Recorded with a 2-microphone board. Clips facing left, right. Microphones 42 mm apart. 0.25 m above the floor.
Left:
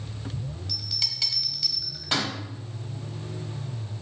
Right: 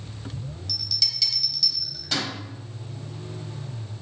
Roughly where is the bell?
Left.